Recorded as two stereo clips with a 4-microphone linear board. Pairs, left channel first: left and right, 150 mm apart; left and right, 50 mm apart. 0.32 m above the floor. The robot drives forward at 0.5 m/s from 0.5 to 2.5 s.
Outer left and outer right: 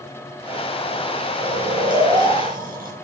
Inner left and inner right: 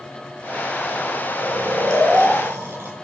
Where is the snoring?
75° right (ahead or behind), 5 m.